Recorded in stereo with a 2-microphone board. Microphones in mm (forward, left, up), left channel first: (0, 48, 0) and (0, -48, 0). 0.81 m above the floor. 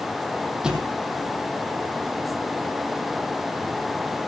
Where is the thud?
10° right (ahead or behind), 2.5 m.